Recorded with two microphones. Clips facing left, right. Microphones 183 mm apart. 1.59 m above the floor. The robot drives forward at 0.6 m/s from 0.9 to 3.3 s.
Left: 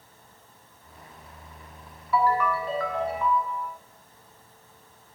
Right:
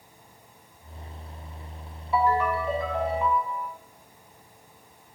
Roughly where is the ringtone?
Right.